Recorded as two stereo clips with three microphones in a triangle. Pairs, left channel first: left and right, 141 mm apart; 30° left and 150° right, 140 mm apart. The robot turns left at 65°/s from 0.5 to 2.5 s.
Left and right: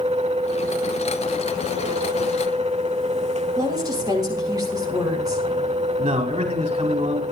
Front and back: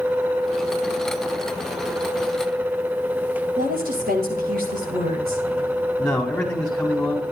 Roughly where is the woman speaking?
Behind right.